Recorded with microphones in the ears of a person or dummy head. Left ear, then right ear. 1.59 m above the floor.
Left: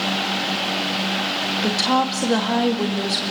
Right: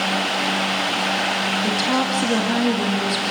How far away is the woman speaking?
About 2.5 m.